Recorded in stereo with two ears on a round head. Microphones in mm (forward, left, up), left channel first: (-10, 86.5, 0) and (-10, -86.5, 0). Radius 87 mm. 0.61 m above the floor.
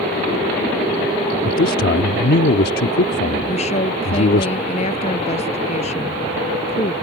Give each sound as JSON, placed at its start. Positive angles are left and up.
{"t": 1.4, "sound": "a man speaking", "side_deg": 55}
{"t": 3.5, "sound": "a woman speaking", "side_deg": 35}